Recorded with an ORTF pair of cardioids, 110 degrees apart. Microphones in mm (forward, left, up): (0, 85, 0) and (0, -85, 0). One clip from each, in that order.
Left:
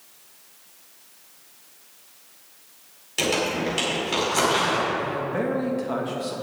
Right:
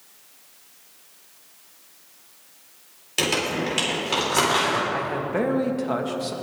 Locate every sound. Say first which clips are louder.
3.2 s crumpling: even; 20° right, 4.5 m
4.9 s a man speaking: right 1 dB; 20° right, 1.7 m